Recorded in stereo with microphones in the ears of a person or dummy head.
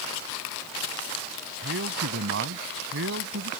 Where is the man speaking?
60° right (ahead or behind); by 3.5 s 65° right (ahead or behind).